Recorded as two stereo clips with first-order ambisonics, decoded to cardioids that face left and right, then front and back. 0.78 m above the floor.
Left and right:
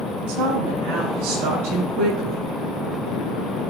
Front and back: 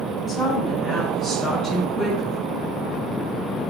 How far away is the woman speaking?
About 6.5 m.